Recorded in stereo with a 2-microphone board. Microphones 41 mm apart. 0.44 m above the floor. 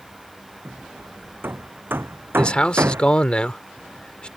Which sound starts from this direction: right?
Hammering, at 0.7 s.